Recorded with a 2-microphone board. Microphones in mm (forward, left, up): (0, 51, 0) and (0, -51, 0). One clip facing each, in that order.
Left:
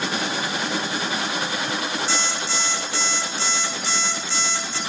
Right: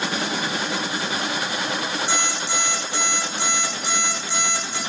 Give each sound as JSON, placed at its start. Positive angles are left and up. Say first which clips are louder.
{"t": 2.1, "sound": "an alarm clock", "louder": "right 1 dB", "side_deg": -15, "distance_m": 5.5}